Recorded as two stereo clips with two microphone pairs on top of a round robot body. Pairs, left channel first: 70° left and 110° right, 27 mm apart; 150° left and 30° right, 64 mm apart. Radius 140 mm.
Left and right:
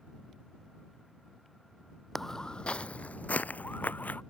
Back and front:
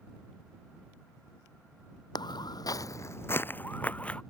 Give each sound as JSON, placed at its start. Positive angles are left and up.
{"t": 2.1, "sound": "footsteps", "azimuth_deg": 155}